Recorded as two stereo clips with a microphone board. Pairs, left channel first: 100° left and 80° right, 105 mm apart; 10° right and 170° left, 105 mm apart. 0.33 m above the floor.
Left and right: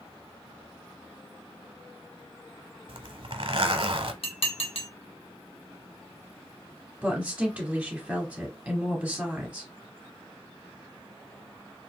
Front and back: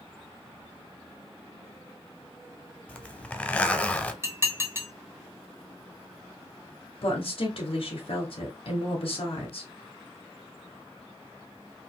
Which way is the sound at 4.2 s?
105° left.